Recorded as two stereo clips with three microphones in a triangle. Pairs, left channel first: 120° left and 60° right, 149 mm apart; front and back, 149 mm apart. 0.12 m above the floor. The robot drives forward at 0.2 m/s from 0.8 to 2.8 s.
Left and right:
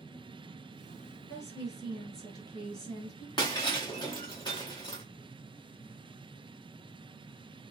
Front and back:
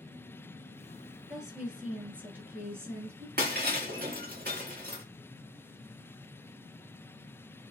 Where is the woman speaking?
95° left, 1.3 m; by 3.3 s 125° left, 1.4 m.